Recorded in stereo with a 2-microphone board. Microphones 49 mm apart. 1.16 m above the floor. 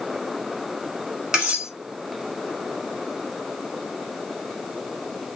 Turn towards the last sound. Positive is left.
turn(degrees=-15)  # may be behind; listen again after turning